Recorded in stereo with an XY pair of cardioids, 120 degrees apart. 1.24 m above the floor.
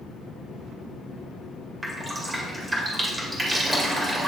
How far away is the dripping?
About 1.9 m.